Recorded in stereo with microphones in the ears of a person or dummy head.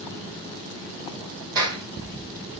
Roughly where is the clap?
Right.